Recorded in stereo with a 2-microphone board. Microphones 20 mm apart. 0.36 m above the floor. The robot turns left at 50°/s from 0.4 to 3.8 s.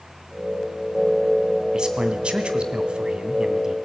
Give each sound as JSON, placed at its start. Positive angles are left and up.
{"t": 1.7, "sound": "a man speaking", "azimuth_deg": -50, "distance_m": 2.0}